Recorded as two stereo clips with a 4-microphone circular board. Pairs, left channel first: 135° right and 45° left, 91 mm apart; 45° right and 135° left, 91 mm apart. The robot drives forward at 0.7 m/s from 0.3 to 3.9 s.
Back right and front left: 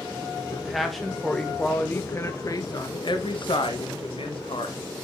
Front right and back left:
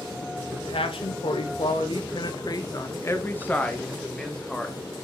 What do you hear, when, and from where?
0.5 s a man speaking: 40° right, 1.9 m; by 4.8 s 125° right, 1.5 m